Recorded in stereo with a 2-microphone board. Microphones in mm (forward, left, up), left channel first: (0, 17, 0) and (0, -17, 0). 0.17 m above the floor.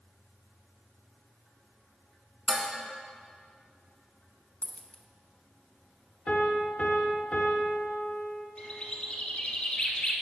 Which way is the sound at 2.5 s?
40° right (ahead or behind).